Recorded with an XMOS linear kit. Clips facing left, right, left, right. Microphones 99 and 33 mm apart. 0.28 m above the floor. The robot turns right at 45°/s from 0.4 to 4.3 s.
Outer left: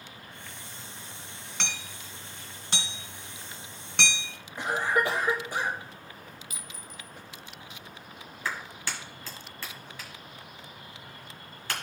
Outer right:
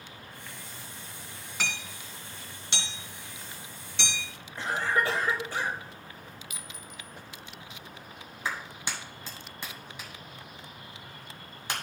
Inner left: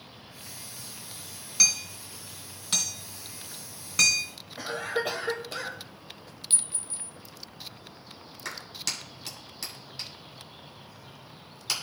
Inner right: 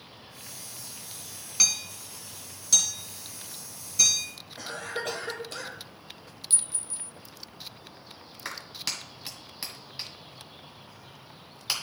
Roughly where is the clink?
Left.